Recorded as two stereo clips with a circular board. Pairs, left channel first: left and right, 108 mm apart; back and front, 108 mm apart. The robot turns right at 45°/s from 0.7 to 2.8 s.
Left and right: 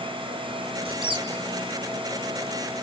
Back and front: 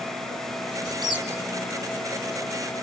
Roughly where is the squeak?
Ahead right.